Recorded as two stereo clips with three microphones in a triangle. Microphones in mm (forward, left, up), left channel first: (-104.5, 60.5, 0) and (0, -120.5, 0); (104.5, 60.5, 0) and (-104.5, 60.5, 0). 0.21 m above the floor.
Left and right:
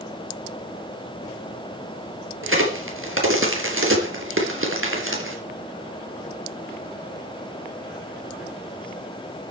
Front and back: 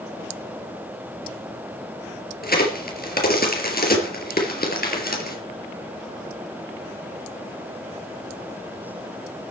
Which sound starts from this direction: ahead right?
A crack, at 2.4 s.